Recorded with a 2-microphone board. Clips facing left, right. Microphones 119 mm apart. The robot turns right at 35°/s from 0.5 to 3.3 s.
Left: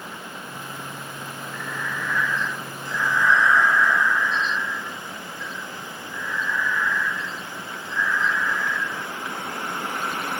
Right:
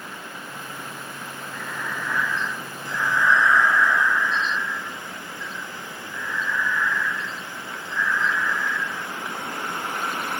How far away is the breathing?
About 1.9 m.